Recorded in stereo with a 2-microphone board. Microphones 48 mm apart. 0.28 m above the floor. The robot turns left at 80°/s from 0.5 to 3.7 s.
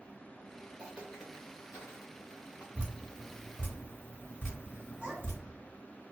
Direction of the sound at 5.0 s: 25° right (ahead or behind).